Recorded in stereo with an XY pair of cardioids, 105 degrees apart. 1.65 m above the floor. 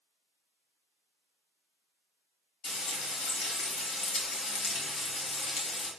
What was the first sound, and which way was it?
Frying, 65° left.